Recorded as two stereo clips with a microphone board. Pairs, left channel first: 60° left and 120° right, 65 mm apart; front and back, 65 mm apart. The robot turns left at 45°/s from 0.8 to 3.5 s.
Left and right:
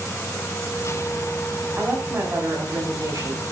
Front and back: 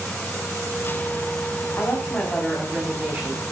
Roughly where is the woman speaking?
Ahead right.